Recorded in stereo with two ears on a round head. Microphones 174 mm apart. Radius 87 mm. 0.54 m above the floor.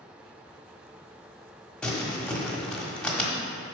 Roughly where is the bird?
I don't hear a bird.